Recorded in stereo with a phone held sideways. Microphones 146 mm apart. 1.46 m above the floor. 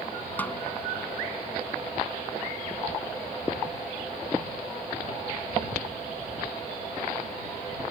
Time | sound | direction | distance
0.4 | a snare drum | 10° left (ahead or behind) | ?